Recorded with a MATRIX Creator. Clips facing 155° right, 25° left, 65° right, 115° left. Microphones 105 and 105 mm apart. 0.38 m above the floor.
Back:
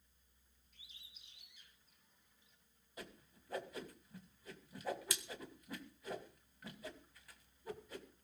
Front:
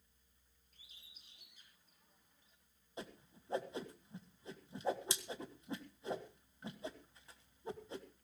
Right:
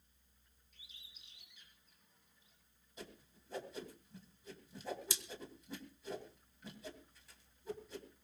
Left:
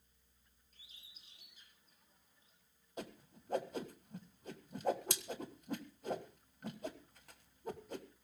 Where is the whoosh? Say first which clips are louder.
Front 4 dB, left 6 dB; 85° left, 1.5 m.